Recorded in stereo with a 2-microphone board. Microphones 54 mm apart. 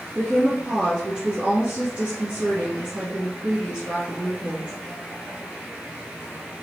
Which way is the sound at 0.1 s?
30° right (ahead or behind).